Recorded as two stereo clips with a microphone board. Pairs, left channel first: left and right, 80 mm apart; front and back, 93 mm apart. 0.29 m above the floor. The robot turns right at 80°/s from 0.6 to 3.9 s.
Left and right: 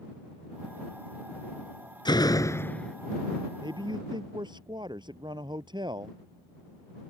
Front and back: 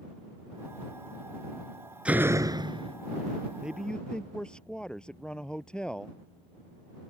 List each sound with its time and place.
2.0 s a door slam: 105° left; by 3.0 s 175° left
3.6 s a man speaking: 105° right; by 6.2 s 80° right